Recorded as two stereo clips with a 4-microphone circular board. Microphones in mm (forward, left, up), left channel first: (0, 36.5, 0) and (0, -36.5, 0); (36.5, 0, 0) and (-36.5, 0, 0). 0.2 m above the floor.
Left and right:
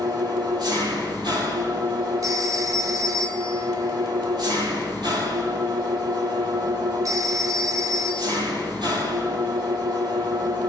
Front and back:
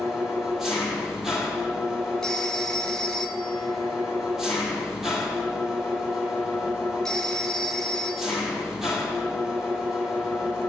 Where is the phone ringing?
80° right, 1.4 m.